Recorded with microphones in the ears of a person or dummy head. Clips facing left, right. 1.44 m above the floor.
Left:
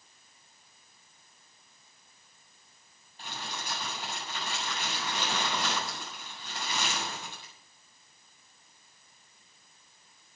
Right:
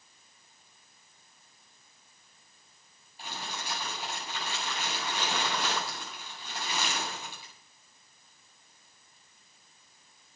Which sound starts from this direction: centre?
Crumpling, at 3.2 s.